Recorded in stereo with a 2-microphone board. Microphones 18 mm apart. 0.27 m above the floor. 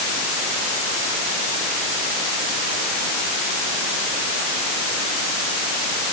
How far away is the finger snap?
I don't hear a finger snap.